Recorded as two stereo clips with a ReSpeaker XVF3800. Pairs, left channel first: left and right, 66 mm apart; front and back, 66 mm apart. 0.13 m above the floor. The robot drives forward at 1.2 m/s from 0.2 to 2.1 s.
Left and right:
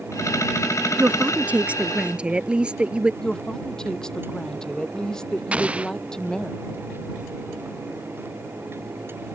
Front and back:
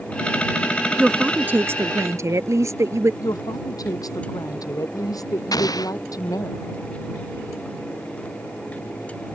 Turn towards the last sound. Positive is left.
turn(degrees=-20)